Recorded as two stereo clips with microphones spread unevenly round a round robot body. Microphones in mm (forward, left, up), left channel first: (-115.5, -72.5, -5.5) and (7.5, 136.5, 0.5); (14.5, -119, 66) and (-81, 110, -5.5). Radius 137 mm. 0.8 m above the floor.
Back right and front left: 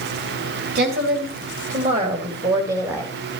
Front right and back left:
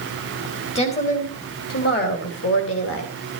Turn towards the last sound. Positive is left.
turn(degrees=-25)